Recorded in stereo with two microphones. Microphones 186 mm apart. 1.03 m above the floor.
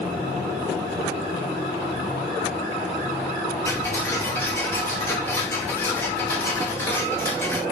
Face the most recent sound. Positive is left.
turn(degrees=10)  # may be behind; listen again after turning